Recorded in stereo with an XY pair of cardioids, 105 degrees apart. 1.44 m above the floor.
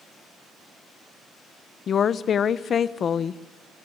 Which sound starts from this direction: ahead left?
A woman speaking, at 1.9 s.